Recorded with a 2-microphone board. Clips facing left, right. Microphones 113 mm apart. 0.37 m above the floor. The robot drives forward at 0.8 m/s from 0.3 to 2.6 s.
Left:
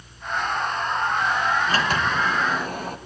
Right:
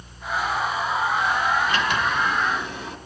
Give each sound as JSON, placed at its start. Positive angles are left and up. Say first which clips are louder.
{"t": 1.7, "sound": "a sliding door", "louder": "even", "side_deg": 40, "distance_m": 2.5}